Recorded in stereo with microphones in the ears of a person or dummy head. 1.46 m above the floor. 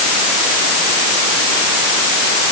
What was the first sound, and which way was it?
Only background noise.